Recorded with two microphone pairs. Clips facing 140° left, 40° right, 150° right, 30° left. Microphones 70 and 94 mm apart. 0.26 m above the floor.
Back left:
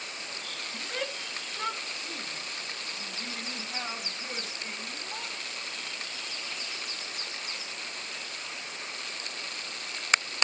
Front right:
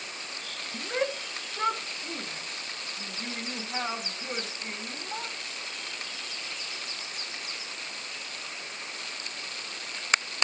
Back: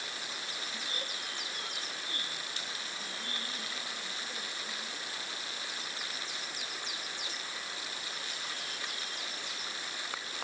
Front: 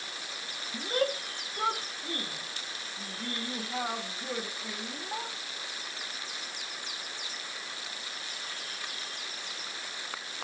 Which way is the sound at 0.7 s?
25° left.